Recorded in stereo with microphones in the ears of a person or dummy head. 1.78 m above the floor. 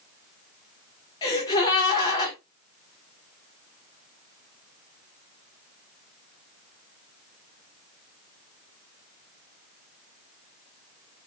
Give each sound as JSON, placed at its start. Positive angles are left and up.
{"t": 1.2, "sound": "a gasp", "side_deg": 30, "distance_m": 2.0}